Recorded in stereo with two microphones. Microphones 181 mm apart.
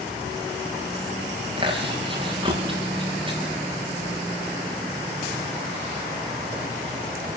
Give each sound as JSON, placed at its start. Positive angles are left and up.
{"t": 1.6, "sound": "chewing", "side_deg": -30, "distance_m": 6.5}